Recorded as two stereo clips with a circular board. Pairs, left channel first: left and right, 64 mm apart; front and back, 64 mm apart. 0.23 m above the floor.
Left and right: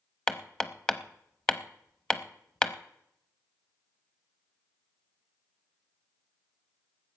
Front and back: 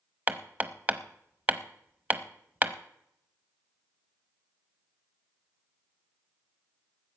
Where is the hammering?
155° left, 0.7 m.